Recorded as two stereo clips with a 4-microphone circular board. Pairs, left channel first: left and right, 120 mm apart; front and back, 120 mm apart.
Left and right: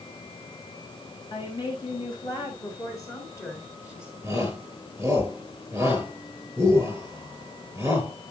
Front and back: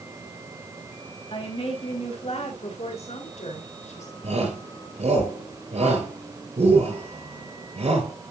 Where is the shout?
160° right, 8 m.